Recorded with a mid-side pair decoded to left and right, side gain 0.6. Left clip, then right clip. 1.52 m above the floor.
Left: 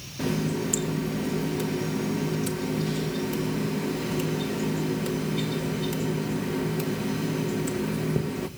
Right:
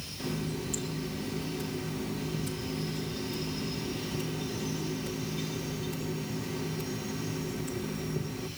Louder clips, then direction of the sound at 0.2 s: Left 9 dB; 60° left.